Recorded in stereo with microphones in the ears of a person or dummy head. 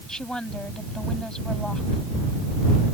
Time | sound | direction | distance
0.1 | a woman speaking | 5° left (ahead or behind) | ?